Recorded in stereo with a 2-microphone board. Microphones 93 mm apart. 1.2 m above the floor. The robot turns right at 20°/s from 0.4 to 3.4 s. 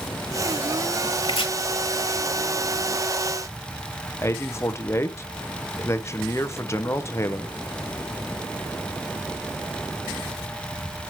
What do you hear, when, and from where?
1.2 s chopping: 75° left (ahead or behind), 1.4 m; by 1.5 s 80° left, 1.4 m
4.2 s a man speaking: 30° left (ahead or behind), 0.6 m